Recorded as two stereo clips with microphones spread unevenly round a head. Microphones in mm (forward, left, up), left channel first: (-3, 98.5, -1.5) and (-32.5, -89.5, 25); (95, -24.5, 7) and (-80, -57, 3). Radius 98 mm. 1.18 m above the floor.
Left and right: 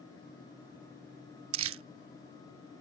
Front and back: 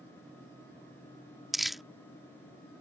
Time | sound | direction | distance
1.5 | crumpling | 80° right | ?